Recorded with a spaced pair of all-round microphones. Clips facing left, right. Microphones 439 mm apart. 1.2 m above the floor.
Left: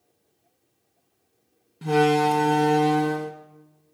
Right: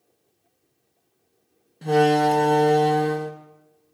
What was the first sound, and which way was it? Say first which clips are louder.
A door slam: right 2 dB; 20° left (ahead or behind).